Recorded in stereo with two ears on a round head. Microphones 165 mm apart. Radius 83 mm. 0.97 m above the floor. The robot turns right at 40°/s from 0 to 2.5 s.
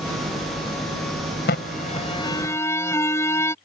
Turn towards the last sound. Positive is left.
turn(degrees=165)